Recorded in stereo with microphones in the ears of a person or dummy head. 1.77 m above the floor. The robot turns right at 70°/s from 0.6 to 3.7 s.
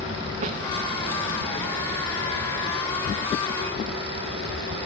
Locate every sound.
0.4 s a snare drum: 40° right (ahead or behind), 0.5 m